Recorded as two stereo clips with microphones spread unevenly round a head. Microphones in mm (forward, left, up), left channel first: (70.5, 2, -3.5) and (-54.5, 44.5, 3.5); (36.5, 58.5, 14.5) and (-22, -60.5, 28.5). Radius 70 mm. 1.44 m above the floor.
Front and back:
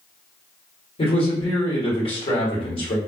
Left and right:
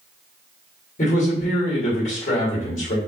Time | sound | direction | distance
1.0 | a man speaking | 30° left | 1.3 m